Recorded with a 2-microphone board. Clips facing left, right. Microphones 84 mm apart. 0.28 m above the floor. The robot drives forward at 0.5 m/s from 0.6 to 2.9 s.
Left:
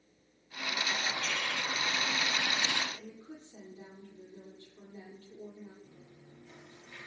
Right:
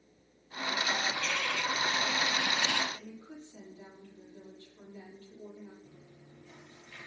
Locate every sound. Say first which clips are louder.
1.1 s a bird: right 2 dB; 30° left (ahead or behind), 2 m; by 2.8 s 20° left (ahead or behind), 2.5 m
2.9 s a woman speaking: right 1 dB; 30° left (ahead or behind), 8 m
5.8 s chewing: even; 15° left (ahead or behind), 8 m